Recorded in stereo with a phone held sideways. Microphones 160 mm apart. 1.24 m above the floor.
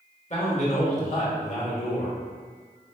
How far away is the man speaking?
About 1.4 m.